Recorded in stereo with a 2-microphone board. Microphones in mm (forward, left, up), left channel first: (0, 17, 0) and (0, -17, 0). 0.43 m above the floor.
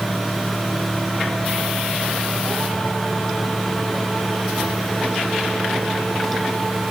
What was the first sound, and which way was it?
Only background noise.